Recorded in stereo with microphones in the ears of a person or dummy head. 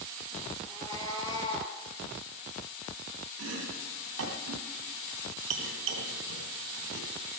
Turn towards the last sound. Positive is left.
turn(degrees=-70)  # may be behind; listen again after turning